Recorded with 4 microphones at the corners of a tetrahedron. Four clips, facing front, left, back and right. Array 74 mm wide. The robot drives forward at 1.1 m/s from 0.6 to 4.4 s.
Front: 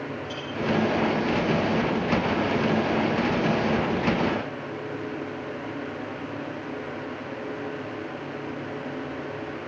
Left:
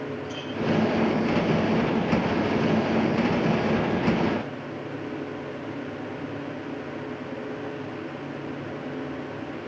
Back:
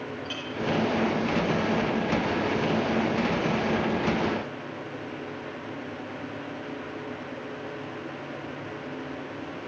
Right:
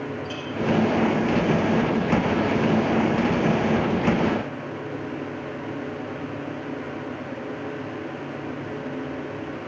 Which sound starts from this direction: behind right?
A clink, at 0.2 s.